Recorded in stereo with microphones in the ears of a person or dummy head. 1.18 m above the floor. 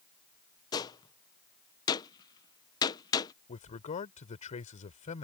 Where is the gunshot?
25° left (ahead or behind).